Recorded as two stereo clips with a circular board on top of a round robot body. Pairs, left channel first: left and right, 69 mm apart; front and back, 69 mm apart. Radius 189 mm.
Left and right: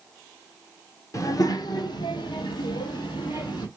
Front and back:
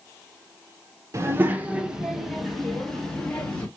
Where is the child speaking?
130° left, 0.8 m; by 3.7 s 75° left, 1.8 m.